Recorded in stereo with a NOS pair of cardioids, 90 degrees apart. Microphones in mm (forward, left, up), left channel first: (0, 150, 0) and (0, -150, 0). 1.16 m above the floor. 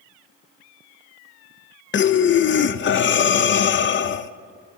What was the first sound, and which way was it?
Breathing, 40° left.